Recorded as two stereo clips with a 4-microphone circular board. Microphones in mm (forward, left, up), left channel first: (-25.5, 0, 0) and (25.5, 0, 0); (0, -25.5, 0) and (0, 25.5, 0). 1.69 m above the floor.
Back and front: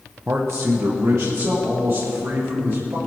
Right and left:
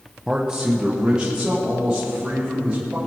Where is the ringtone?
No ringtone in this recording.